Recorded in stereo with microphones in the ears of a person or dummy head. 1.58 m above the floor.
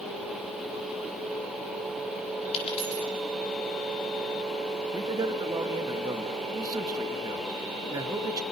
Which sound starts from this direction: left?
A dropped coin, at 2.5 s.